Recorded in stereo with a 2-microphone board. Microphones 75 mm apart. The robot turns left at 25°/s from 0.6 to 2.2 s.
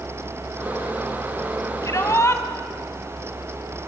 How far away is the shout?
About 2.5 m.